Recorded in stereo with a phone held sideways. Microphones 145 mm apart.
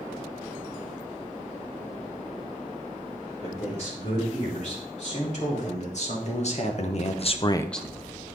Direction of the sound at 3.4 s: 55° left (ahead or behind).